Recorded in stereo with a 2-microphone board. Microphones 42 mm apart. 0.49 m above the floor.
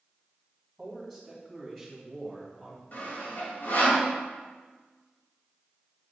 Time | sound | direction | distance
0.8 | a man speaking | centre (ahead or behind) | 2.5 m
2.9 | sawing | 50° left (ahead or behind) | 2.5 m